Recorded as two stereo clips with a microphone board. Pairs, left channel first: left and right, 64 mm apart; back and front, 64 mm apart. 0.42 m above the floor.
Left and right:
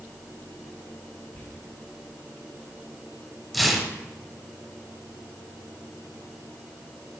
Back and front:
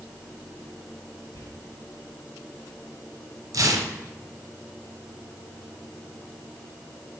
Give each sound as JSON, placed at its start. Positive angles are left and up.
{"t": 1.3, "sound": "whispering", "azimuth_deg": 150, "distance_m": 3.0}
{"t": 3.5, "sound": "tearing paper", "azimuth_deg": 0, "distance_m": 1.0}